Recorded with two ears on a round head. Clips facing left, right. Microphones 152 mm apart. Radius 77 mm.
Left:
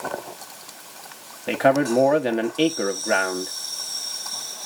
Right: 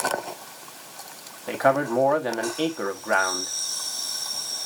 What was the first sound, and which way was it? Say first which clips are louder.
A man speaking: left 3 dB; 30° left (ahead or behind).